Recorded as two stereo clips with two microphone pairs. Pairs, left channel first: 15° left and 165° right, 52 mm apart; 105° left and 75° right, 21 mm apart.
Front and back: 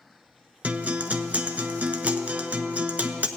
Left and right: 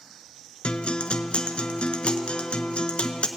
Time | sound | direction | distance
0.6 | a guitar | 135° left | 0.7 m